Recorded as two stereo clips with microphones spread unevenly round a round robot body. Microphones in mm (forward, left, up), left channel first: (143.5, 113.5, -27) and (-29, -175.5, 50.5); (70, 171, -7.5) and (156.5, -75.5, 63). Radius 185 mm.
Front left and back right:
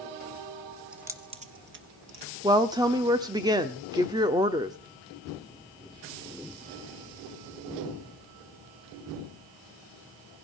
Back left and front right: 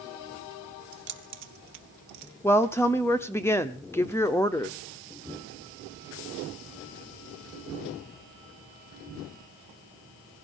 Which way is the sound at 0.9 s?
30° right.